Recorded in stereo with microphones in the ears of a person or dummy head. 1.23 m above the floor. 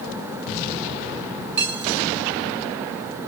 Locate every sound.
1.6 s cutlery clinking: 60° right (ahead or behind), 4.5 m